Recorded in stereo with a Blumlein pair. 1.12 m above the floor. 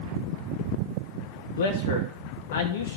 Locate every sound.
1.6 s a man speaking: 60° left, 1.2 m